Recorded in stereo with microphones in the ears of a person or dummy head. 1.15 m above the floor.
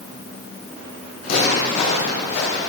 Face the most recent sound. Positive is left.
turn(degrees=60)  # may be behind; listen again after turning